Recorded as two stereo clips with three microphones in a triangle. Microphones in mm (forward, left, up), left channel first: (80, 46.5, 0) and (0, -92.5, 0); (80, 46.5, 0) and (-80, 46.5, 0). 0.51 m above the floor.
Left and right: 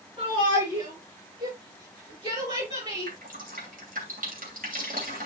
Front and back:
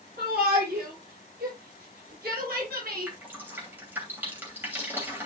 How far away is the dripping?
About 2.5 m.